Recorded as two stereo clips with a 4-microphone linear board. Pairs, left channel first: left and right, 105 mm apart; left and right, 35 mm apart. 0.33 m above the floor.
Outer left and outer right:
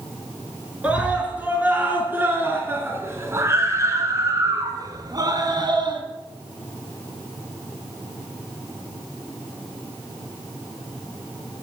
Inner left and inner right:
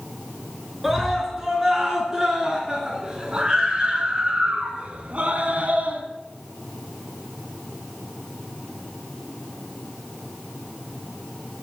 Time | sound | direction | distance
0.8 | a scream | 10° right (ahead or behind) | 4.5 m